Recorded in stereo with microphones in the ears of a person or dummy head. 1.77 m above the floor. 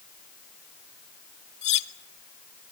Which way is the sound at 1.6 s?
35° left (ahead or behind).